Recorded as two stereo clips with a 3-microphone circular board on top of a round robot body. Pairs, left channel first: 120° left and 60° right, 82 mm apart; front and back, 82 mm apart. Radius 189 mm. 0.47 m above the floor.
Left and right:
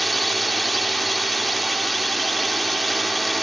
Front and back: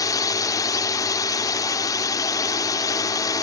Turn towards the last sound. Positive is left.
turn(degrees=30)